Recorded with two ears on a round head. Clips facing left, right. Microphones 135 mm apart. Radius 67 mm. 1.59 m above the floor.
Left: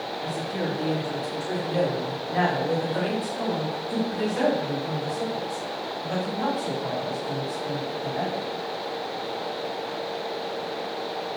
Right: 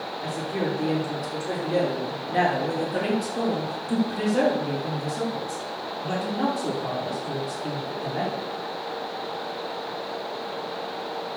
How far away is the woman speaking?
About 5.5 m.